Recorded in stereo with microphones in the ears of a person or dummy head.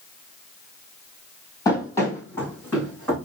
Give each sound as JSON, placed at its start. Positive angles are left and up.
{"t": 1.6, "sound": "running footsteps", "side_deg": 25, "distance_m": 2.0}